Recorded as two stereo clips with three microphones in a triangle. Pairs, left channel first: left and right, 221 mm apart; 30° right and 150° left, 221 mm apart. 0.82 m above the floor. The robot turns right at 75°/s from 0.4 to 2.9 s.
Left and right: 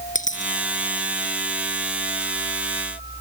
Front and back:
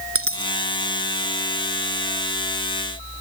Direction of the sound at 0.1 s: 145° left.